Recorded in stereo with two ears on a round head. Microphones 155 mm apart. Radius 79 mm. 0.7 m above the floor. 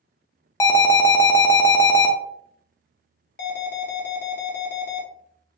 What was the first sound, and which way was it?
An alarm, 15° left (ahead or behind).